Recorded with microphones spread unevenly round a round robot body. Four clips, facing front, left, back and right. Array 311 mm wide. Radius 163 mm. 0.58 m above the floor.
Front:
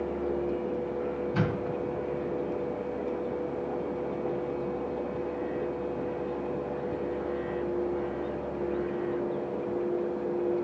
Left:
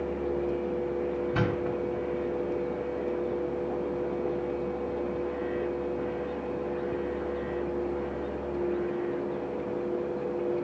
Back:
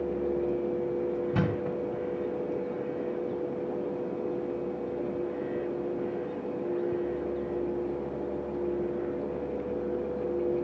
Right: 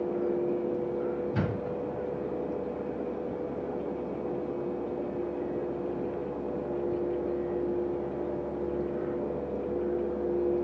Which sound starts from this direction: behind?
A thud, at 1.3 s.